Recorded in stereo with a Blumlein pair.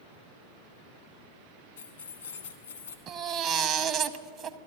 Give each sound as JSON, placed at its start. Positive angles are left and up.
{"t": 1.8, "sound": "keys jangling", "azimuth_deg": 65, "distance_m": 1.4}
{"t": 3.1, "sound": "a baby crying", "azimuth_deg": -25, "distance_m": 0.7}